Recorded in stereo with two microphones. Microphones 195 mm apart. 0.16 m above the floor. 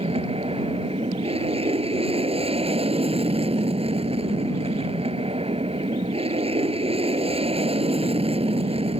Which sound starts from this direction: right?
An aircraft, at 0.0 s.